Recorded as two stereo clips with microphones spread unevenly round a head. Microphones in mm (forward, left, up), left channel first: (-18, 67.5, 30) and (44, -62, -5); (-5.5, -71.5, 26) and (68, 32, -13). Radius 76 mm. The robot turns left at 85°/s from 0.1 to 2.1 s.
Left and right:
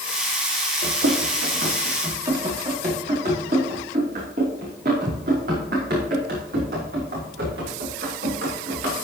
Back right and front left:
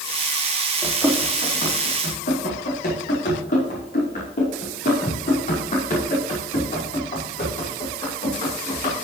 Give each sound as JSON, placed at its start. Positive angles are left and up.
{"t": 0.8, "sound": "running footsteps", "azimuth_deg": -30, "distance_m": 4.5}